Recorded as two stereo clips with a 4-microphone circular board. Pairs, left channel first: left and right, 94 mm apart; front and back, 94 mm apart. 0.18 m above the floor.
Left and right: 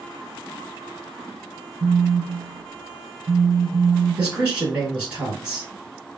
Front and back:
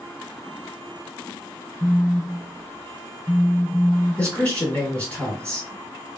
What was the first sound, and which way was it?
A phone buzzing, 60° right.